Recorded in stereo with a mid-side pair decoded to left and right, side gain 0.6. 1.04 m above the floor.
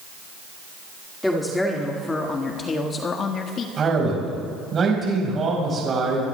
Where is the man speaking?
35° right, 5 m.